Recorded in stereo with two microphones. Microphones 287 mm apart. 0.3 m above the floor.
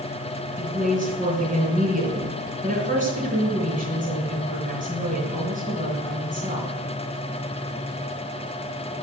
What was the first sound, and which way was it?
A woman speaking, 25° right (ahead or behind).